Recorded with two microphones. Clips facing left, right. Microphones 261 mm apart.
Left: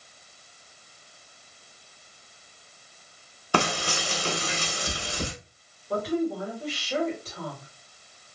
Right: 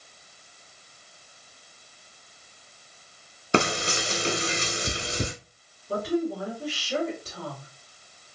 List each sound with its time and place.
3.5 s frying: 25° right (ahead or behind), 0.7 m
5.9 s a woman speaking: 50° right (ahead or behind), 2.5 m